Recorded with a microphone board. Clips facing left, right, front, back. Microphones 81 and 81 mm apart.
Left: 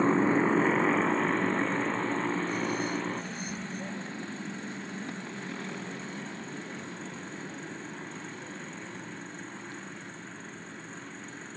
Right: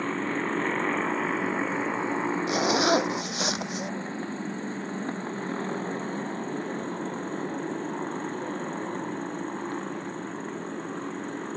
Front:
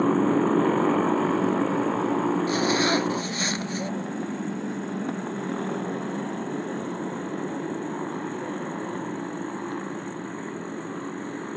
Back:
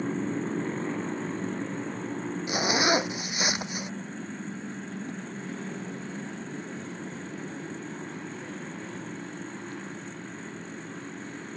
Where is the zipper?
105° right.